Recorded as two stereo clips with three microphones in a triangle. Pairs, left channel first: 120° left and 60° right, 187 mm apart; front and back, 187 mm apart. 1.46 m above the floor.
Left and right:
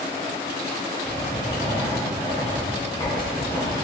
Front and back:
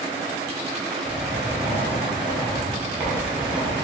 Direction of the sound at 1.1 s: 120° left.